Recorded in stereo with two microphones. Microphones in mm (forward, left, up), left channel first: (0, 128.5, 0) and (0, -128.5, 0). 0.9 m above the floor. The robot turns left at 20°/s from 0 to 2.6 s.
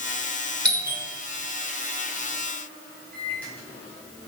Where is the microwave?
5° left (ahead or behind), 6 m.